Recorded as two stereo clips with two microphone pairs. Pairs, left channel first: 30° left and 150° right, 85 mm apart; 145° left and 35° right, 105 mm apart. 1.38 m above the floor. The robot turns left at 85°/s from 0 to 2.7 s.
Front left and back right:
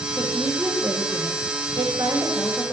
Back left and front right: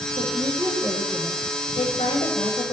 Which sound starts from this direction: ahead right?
A woman speaking, at 0.2 s.